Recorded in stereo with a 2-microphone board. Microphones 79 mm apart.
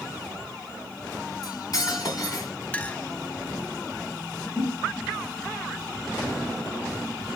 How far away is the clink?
About 0.5 m.